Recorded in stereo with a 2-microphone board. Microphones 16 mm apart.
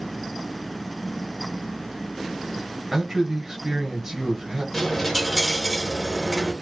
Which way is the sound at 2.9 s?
35° right (ahead or behind).